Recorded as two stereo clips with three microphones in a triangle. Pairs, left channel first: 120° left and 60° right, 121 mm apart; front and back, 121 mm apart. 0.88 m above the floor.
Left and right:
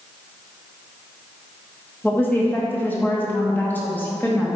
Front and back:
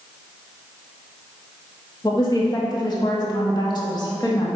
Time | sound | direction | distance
2.0 | a woman speaking | 50° left | 1.7 m